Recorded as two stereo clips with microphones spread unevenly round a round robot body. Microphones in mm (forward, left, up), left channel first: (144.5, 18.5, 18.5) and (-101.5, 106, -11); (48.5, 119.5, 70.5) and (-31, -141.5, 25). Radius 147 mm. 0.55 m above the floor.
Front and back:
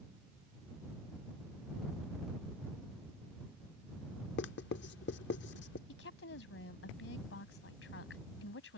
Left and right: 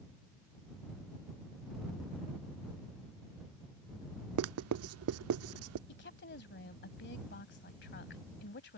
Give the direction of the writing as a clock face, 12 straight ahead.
3 o'clock.